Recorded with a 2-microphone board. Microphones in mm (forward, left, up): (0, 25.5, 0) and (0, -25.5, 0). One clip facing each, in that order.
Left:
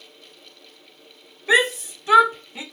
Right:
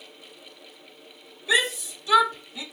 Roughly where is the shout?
Left.